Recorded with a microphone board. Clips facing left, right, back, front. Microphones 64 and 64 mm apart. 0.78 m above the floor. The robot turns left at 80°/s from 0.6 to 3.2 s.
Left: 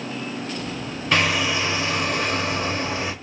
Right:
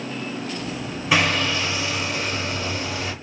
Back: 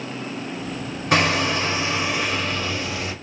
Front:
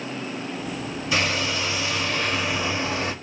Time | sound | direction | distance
1.1 | hammering | 170° right | 1.3 m